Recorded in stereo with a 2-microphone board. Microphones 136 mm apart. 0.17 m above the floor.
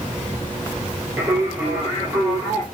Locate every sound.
1.2 s singing: 15° right (ahead or behind), 5.5 m